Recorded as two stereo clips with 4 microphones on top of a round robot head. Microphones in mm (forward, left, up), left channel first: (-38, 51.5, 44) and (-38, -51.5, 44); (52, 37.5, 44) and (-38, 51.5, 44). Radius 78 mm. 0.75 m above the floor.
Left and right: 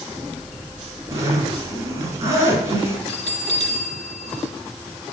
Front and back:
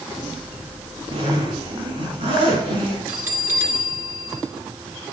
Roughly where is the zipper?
Behind right.